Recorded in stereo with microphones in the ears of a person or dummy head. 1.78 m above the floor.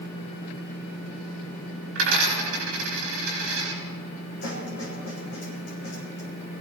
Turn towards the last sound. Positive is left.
turn(degrees=50)  # may be behind; listen again after turning